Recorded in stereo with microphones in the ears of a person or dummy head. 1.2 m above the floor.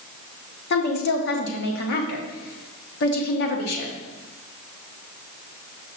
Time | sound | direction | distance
0.7 | a woman speaking | 55° left (ahead or behind) | 1.2 m